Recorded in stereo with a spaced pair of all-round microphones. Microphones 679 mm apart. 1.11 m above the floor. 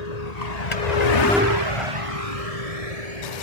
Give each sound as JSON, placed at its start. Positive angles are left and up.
{"t": 0.0, "sound": "a vehicle", "side_deg": 70}